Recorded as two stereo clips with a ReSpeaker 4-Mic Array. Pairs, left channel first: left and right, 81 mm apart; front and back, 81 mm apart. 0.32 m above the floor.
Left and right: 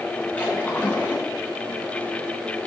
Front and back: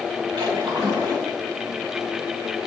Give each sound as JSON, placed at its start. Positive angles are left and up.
{"t": 0.4, "sound": "a splash", "azimuth_deg": 160, "distance_m": 3.0}